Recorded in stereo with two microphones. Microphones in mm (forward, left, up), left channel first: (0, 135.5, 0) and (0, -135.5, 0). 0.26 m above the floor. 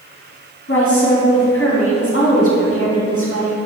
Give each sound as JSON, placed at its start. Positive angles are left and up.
{"t": 0.7, "sound": "a woman speaking", "side_deg": 55, "distance_m": 2.5}